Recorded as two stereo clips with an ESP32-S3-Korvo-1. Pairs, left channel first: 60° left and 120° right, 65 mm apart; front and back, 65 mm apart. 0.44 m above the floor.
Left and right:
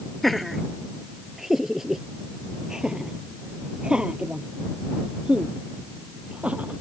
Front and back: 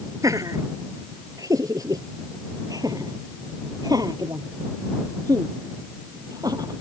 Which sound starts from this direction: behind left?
Laughter, at 0.2 s.